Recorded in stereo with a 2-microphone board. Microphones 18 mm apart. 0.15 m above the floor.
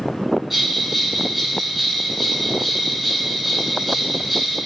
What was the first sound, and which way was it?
A bell, 15° right (ahead or behind).